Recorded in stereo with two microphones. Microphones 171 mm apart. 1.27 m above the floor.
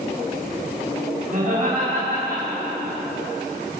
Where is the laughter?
50° right (ahead or behind), 7.5 m; by 3.0 s 60° right (ahead or behind), 7.5 m.